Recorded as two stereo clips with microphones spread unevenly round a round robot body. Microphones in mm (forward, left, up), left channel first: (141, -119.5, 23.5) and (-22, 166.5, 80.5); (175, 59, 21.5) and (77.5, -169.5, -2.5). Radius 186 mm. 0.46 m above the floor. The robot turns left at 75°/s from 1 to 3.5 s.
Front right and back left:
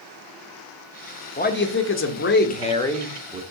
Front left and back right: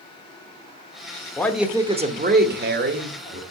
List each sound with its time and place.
1.4 s a man speaking: 15° right, 1.1 m; by 3.4 s 170° right, 1.1 m